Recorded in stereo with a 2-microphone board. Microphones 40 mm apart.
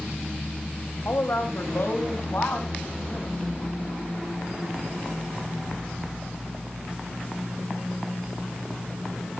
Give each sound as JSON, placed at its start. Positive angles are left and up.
{"t": 1.1, "sound": "a woman speaking", "side_deg": 60, "distance_m": 2.5}